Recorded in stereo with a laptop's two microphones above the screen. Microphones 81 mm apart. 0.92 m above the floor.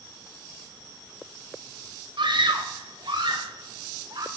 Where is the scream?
70° right (ahead or behind), 1.8 m; by 4.3 s 60° right (ahead or behind), 3 m.